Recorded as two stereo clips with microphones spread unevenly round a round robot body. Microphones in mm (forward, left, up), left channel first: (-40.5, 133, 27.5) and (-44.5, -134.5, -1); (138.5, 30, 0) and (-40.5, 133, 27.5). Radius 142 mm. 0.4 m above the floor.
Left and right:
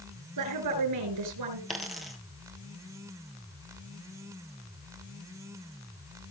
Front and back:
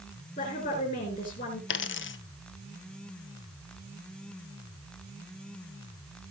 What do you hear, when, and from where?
0.4 s a woman speaking: 90° right, 4.5 m
1.7 s a dropped coin: straight ahead, 1.0 m